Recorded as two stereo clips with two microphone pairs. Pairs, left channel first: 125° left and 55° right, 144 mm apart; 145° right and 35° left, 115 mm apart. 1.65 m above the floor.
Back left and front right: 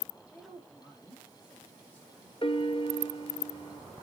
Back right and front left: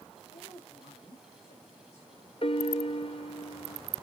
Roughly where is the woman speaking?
Behind right.